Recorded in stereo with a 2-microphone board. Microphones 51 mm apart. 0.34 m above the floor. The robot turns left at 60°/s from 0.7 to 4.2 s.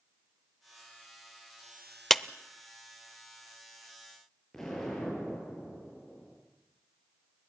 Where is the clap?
5° left (ahead or behind), 0.7 m; by 2.2 s centre (ahead or behind), 0.7 m.